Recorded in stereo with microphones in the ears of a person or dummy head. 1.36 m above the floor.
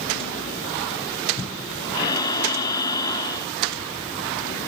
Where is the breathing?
25° left (ahead or behind), 1.1 m.